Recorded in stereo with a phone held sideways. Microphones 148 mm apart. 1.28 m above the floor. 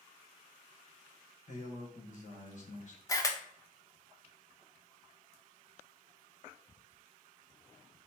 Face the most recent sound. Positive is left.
turn(degrees=25)  # may be behind; listen again after turning